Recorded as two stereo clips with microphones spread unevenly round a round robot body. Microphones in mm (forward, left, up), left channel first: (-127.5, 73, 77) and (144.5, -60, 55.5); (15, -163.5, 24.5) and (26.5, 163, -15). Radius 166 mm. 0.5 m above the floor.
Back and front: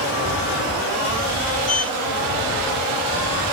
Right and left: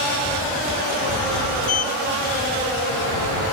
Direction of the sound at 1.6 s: 140° right.